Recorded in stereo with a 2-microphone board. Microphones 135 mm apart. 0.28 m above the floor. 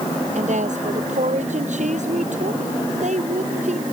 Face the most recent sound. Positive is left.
turn(degrees=-65)  # may be behind; listen again after turning